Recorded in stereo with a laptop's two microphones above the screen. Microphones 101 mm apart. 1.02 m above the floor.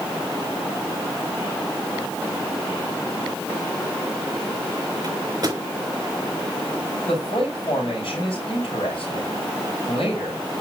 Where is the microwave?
40° right (ahead or behind), 4.5 m.